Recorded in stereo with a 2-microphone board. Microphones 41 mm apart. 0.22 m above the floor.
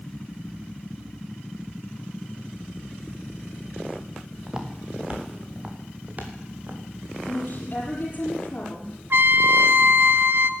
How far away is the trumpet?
About 0.9 m.